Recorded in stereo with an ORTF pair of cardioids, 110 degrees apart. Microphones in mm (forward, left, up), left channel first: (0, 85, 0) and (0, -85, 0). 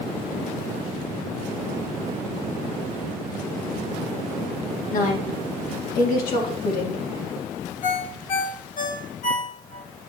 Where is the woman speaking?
60° left, 2 m.